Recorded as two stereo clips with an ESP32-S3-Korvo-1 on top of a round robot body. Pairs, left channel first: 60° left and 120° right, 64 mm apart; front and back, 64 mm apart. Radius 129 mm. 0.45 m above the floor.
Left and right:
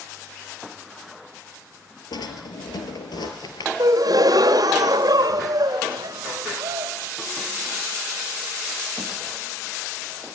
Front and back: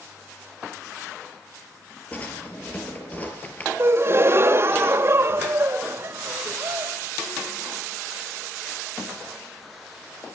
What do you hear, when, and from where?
2.1 s a drawer: 70° left, 3.5 m
3.8 s a gasp: 135° right, 1.8 m